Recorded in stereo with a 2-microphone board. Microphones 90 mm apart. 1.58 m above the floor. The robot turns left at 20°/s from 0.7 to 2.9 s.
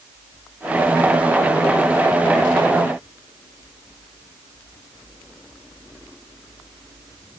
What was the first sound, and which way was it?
Only background noise.